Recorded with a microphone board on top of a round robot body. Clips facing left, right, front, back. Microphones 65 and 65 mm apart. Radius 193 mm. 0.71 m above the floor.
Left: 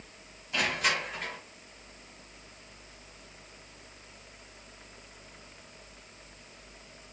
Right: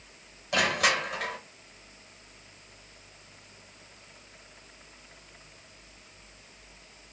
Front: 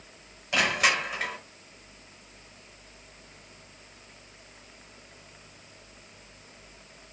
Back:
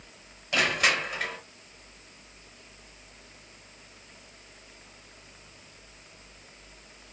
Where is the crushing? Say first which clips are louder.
Right 4 dB, even; 80° right, 3 m.